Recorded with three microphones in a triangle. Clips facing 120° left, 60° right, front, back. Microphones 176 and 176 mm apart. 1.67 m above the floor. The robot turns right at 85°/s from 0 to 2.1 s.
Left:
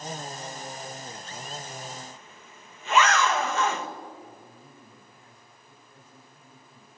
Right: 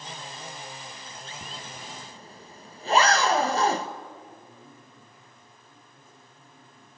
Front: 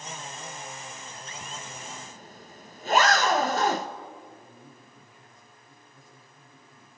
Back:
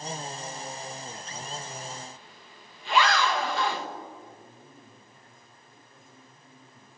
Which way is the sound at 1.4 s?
80° right.